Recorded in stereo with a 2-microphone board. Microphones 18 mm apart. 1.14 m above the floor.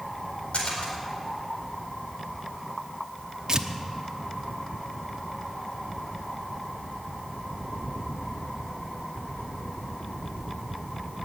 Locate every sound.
0.5 s a splash: 75° left (ahead or behind), 4.5 m
3.5 s tearing paper: 40° right (ahead or behind), 0.8 m